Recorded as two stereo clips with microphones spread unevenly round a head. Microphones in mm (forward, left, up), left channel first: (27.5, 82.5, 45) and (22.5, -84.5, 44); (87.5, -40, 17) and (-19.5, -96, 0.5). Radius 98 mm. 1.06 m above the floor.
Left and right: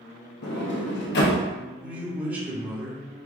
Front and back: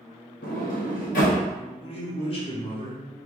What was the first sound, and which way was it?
A sliding door, 65° left.